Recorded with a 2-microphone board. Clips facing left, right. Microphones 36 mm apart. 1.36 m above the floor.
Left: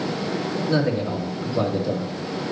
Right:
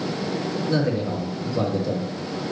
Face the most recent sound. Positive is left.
turn(degrees=10)  # may be behind; listen again after turning